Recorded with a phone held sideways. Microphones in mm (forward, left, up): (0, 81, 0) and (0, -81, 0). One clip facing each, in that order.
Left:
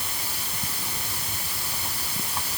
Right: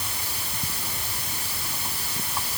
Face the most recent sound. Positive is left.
No sound to turn to.